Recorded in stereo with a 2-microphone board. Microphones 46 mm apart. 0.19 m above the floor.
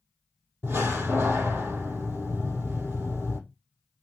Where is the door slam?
55° right (ahead or behind), 3 m.